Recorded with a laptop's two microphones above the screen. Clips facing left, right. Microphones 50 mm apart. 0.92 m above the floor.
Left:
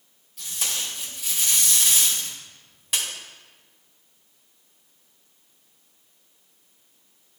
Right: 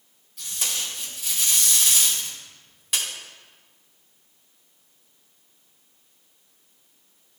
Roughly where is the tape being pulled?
Centre.